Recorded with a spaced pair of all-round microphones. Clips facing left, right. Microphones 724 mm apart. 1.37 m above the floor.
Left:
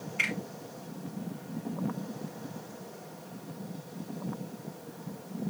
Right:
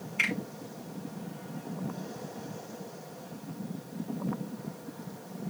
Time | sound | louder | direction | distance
0.2 | a finger snap | right 4 dB | 10° right (ahead or behind) | 3.5 m